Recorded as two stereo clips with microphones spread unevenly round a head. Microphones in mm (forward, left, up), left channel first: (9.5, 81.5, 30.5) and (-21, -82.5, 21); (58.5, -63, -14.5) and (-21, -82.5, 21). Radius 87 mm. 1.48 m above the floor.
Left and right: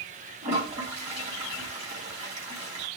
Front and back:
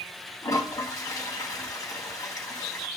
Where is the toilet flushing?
45° right, 3.5 m.